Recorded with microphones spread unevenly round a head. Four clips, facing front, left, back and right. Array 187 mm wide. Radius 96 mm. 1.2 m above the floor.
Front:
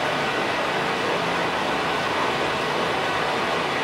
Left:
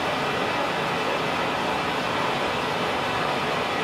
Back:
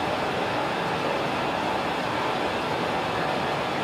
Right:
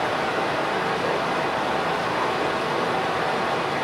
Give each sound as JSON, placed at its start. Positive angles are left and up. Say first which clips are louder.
{"t": 0.0, "sound": "running water", "louder": "right 2 dB, front 2 dB", "azimuth_deg": -50, "distance_m": 1.4}